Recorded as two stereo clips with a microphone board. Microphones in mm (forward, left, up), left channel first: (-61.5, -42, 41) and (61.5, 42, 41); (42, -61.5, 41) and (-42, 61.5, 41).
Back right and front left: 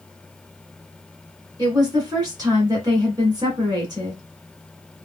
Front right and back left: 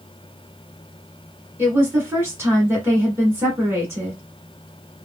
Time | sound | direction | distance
1.6 | a woman speaking | 65° left | 1.6 m